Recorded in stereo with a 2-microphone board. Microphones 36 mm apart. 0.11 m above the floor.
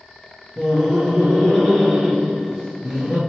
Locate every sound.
0.6 s laughter: centre (ahead or behind), 1.4 m